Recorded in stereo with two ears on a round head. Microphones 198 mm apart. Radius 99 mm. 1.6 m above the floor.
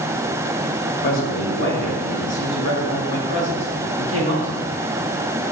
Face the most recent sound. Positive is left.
turn(degrees=55)  # may be behind; listen again after turning